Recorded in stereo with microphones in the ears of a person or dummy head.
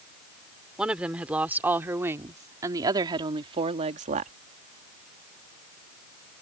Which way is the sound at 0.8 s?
5° right (ahead or behind).